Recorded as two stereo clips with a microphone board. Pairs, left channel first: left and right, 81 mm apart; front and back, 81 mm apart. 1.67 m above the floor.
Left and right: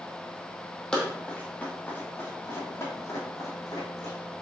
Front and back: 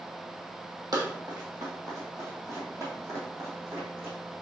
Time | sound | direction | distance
0.9 | running footsteps | 170° left | 2.5 m